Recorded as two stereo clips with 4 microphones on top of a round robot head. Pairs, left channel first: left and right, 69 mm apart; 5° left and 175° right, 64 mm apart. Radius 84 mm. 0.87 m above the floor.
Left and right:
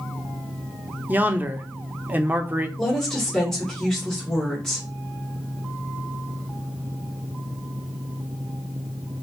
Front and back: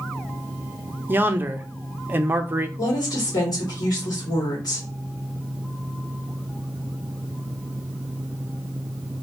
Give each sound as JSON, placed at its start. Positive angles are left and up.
{"t": 1.1, "sound": "a man speaking", "azimuth_deg": -140, "distance_m": 0.6}
{"t": 2.8, "sound": "a woman speaking", "azimuth_deg": 10, "distance_m": 2.0}